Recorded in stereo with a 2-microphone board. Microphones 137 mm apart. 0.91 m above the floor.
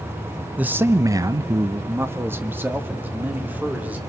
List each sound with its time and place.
0.6 s a man speaking: 10° right (ahead or behind), 0.7 m; by 4.0 s 15° right (ahead or behind), 2.5 m